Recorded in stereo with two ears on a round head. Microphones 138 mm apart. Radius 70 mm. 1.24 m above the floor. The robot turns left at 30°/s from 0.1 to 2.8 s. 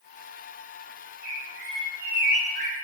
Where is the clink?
No clink in this recording.